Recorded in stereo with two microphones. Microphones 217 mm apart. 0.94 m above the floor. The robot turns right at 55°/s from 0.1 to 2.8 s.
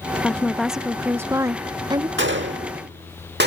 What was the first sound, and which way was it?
A woman speaking, 5° left (ahead or behind).